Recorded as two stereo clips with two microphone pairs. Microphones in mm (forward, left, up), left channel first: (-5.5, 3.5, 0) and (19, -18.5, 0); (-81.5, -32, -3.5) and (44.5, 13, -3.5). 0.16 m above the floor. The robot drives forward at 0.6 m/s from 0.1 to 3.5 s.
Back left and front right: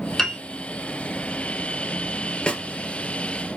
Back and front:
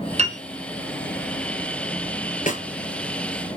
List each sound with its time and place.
0.2 s a piano: 55° left, 1.7 m; by 0.4 s 60° left, 1.6 m
2.5 s a snare drum: 165° right, 1.6 m